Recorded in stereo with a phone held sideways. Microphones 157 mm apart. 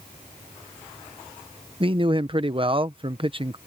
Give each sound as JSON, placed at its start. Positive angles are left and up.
{"t": 1.8, "sound": "a man speaking", "side_deg": -35}